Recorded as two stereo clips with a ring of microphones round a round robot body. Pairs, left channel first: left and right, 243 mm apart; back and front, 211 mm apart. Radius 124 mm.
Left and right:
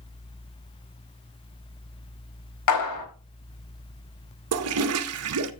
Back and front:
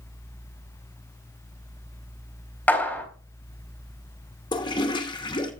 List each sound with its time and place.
2.7 s a clap: 100° left, 4 m
4.5 s a toilet flushing: 110° right, 0.8 m